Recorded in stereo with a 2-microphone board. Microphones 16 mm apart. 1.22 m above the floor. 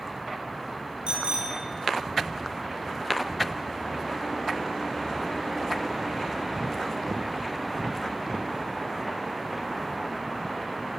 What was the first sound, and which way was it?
A bicycle bell, 80° right.